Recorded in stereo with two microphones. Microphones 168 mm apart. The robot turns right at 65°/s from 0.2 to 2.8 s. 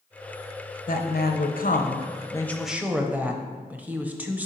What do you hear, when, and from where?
0.9 s a woman speaking: 65° left, 0.9 m; by 4.5 s 170° right, 0.9 m